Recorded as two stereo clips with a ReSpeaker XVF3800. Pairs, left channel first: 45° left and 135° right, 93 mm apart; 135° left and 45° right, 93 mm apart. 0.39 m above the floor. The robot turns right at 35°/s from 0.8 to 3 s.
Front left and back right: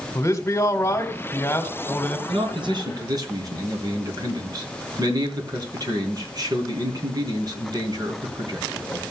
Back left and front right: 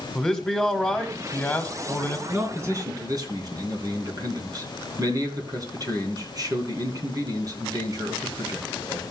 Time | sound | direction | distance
0.1 | a man speaking | 65° left | 1.6 m
2.3 | a man speaking | 115° right | 3 m